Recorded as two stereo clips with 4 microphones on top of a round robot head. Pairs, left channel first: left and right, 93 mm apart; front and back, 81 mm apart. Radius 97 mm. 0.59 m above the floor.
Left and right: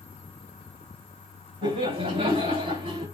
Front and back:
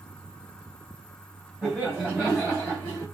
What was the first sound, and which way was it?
Laughter, 90° right.